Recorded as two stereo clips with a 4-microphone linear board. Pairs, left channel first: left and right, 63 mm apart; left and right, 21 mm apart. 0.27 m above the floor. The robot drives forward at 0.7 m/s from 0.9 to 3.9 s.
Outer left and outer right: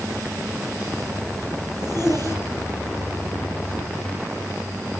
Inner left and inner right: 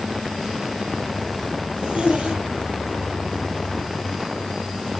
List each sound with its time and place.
1.7 s a zipper: 75° right (ahead or behind), 5 m; by 3.0 s 65° right (ahead or behind), 5 m